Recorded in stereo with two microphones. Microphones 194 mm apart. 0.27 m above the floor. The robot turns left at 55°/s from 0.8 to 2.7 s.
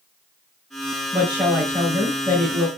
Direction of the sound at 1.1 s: 30° right (ahead or behind).